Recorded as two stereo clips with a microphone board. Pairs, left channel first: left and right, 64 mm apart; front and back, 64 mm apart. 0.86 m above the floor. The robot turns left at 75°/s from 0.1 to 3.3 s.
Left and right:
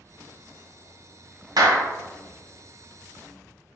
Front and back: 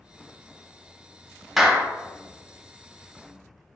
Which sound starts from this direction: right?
A clap, at 1.6 s.